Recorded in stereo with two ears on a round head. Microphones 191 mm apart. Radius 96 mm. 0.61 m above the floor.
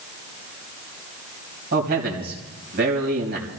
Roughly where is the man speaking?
Right.